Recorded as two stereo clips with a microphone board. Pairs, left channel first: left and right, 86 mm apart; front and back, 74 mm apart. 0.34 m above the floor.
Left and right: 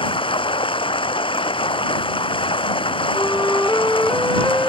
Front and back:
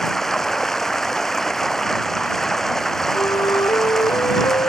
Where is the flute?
5° left.